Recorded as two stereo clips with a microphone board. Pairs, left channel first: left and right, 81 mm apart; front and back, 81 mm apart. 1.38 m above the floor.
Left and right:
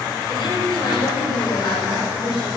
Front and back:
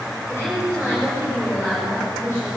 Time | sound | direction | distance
0.3 | a woman speaking | 55° left | 7.5 m